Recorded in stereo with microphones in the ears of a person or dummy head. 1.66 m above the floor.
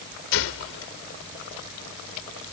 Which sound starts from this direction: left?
A gunshot, at 0.3 s.